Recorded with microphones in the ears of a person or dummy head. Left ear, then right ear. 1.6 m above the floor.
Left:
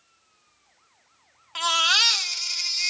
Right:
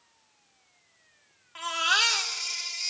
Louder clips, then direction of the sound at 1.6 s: Left 5 dB; 45° left (ahead or behind).